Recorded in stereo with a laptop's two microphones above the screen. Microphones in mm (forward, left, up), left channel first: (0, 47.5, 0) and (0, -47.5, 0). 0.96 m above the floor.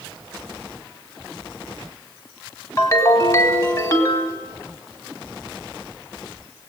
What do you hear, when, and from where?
2.8 s a ringtone: 35° left (ahead or behind), 2.5 m